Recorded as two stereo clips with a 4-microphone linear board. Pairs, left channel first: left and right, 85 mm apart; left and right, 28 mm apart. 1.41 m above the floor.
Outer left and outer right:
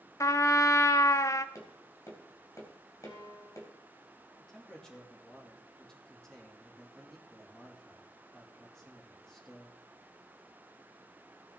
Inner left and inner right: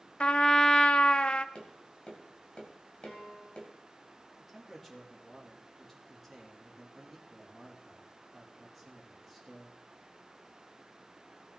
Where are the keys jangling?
No keys jangling in this recording.